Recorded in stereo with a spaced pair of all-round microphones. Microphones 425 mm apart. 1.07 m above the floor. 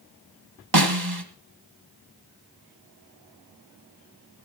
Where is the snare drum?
60° right (ahead or behind), 1.9 m.